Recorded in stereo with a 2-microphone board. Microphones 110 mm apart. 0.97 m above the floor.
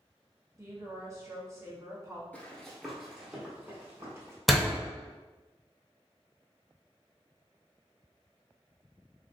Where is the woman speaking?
25° right (ahead or behind), 1.0 m.